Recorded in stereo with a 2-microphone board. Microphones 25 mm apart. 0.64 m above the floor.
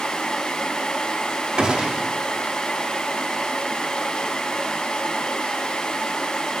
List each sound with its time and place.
1.6 s a gunshot: 35° right (ahead or behind), 1.2 m